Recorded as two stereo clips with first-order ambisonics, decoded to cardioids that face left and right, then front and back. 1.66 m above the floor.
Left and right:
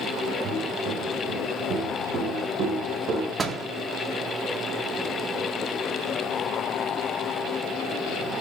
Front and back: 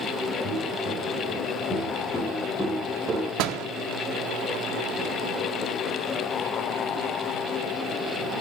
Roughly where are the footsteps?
Ahead right.